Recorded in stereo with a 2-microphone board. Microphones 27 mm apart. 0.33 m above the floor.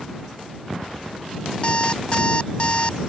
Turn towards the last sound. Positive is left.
turn(degrees=35)  # may be behind; listen again after turning